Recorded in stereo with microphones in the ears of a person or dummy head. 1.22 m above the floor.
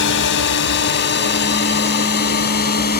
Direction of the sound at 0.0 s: 60° left (ahead or behind).